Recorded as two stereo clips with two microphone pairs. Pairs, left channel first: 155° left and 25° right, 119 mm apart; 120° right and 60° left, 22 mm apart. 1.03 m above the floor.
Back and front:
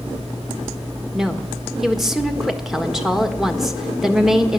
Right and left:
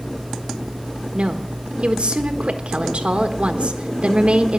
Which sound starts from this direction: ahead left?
A woman speaking, at 1.1 s.